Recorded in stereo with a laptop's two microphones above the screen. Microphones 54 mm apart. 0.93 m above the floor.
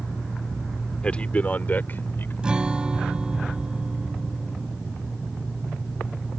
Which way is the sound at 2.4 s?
15° right (ahead or behind).